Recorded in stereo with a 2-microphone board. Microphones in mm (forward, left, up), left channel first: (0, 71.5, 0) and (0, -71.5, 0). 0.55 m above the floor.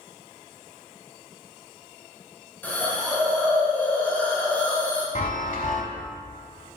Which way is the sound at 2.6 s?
10° left (ahead or behind).